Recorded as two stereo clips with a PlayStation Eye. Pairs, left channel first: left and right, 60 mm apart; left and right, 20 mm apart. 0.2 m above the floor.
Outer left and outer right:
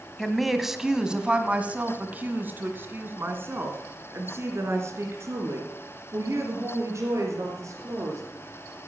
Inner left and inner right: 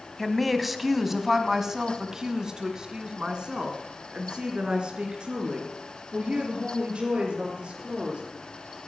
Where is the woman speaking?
Centre (ahead or behind), 1.4 m; by 8.2 s 60° right (ahead or behind), 4.5 m.